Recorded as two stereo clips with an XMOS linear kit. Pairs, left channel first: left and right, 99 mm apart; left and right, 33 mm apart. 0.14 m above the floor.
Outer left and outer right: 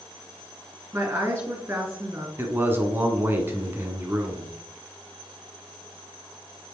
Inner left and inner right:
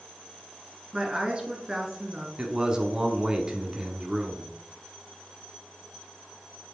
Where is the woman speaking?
20° right (ahead or behind), 2.5 m.